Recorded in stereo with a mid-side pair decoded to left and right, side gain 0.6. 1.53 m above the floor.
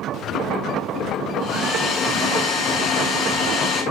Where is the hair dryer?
60° left, 9.5 m.